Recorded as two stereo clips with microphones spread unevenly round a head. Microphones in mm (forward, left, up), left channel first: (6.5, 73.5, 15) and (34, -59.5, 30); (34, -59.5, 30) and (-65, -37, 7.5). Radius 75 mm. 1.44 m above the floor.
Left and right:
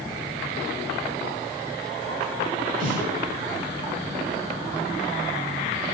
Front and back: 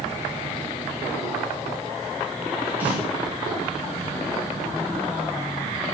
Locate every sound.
2.8 s a snare drum: 115° right, 9 m